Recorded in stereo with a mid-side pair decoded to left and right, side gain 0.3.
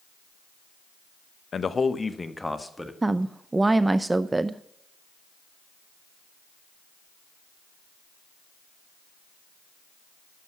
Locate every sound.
1.5 s a man speaking: 65° left, 0.8 m; by 2.9 s 10° left, 1.8 m
3.0 s a woman speaking: 30° right, 0.5 m